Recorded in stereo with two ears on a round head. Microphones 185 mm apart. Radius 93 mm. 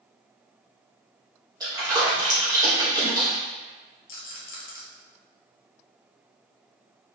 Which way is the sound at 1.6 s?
20° right (ahead or behind).